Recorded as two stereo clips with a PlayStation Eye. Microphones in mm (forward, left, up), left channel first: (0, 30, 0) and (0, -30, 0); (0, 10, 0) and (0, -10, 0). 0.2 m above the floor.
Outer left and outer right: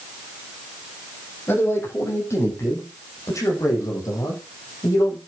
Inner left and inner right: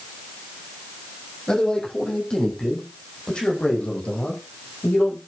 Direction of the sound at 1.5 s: 40° left (ahead or behind).